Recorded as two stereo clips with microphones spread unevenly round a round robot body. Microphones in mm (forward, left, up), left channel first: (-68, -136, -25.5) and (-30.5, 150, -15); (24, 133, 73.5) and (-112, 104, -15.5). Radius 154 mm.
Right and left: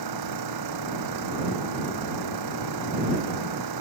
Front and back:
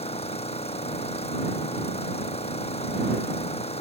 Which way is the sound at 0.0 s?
55° left.